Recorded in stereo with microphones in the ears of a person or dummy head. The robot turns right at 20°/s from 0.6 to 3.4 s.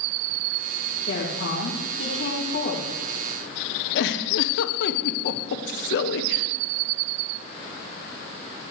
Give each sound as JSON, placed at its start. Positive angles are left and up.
{"t": 1.1, "sound": "a woman speaking", "azimuth_deg": 85, "distance_m": 3.0}
{"t": 4.0, "sound": "a giggle", "side_deg": 70, "distance_m": 1.0}